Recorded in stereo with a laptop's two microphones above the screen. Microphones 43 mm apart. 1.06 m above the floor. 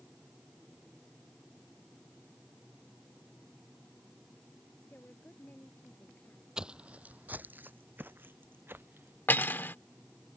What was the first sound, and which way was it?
A woman speaking, 50° left (ahead or behind).